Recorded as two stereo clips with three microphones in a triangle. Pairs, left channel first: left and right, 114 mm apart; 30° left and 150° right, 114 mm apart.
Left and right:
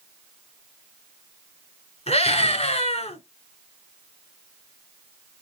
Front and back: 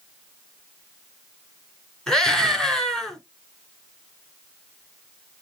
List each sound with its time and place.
2.1 s a scream: 115° left, 4.5 m